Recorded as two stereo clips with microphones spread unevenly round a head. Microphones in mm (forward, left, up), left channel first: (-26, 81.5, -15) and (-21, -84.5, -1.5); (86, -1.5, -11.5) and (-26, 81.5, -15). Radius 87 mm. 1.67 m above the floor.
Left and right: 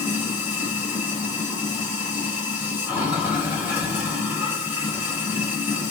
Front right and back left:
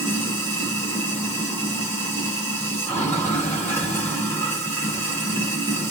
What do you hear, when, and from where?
0.0 s running water: 55° right, 1.3 m